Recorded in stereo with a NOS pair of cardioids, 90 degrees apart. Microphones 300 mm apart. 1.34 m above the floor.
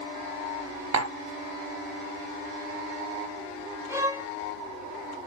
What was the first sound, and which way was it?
Tapping, 55° right.